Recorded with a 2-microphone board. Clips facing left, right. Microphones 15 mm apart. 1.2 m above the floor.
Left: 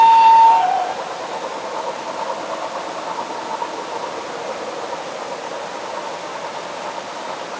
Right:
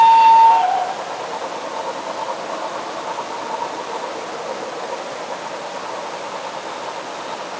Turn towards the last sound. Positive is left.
No sound to turn to.